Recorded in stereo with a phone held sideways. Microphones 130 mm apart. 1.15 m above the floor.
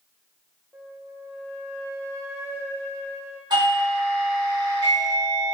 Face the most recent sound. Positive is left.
turn(degrees=-35)  # may be behind; listen again after turning